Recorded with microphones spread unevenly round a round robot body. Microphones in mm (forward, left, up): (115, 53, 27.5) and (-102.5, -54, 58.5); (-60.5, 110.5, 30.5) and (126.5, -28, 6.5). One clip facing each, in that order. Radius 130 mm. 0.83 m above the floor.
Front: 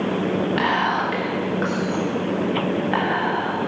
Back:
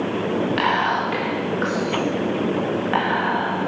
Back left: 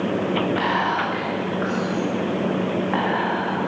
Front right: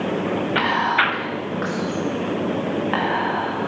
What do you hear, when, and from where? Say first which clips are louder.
0.6 s whispering: even, even; 65° right, 1.6 m